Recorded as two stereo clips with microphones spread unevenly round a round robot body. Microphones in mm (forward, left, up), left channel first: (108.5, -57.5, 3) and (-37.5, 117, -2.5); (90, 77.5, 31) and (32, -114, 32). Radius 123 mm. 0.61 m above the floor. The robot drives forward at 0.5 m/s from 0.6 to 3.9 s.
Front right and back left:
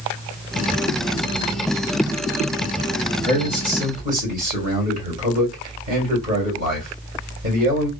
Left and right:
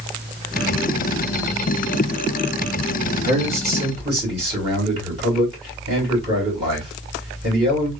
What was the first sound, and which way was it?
A man speaking, 170° right.